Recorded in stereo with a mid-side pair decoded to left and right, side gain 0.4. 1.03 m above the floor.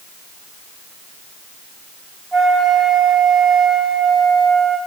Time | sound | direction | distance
2.3 | a flute | 15° right | 5.5 m